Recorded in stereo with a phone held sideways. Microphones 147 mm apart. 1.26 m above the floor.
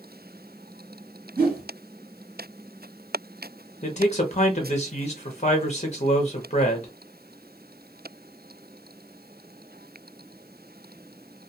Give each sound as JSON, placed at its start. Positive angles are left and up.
{"t": 1.4, "sound": "a whoosh", "side_deg": -85, "distance_m": 1.2}
{"t": 3.8, "sound": "a man speaking", "side_deg": 45, "distance_m": 0.6}